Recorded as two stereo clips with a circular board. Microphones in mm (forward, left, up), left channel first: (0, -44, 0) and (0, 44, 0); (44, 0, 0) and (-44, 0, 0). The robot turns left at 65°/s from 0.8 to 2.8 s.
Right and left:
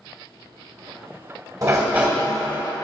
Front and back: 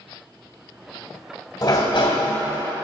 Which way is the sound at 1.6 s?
45° left.